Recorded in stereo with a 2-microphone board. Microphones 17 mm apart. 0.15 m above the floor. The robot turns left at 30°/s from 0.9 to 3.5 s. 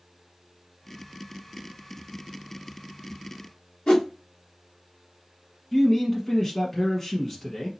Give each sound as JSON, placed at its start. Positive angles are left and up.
{"t": 3.9, "sound": "a whoosh", "side_deg": 85, "distance_m": 2.5}
{"t": 5.7, "sound": "a man speaking", "side_deg": 20, "distance_m": 1.1}